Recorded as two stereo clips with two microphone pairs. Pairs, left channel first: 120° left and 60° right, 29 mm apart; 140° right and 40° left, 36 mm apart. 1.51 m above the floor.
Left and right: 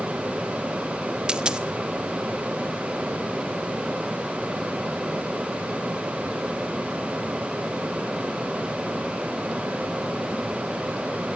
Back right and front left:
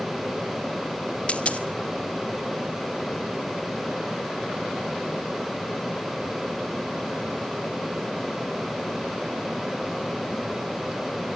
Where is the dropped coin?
100° right, 1.1 m.